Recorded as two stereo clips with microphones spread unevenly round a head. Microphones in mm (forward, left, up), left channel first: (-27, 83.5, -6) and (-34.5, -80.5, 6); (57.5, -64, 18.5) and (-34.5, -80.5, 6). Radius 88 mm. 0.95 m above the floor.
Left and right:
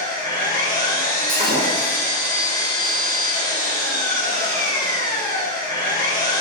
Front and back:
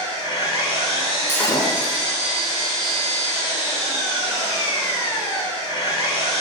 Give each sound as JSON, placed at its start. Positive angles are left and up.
{"t": 0.0, "sound": "an engine running", "azimuth_deg": 15, "distance_m": 1.3}
{"t": 1.3, "sound": "breaking glass", "azimuth_deg": -50, "distance_m": 1.0}